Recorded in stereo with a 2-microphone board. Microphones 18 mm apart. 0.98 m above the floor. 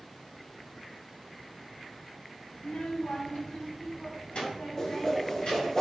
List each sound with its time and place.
2.6 s a child speaking: 70° left (ahead or behind), 0.9 m
4.8 s a whoosh: 25° left (ahead or behind), 1.1 m